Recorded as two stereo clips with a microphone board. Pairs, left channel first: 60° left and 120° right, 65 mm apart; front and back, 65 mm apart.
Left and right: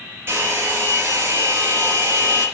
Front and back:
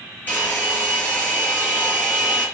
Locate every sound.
0.3 s a hair dryer: 65° right, 4.5 m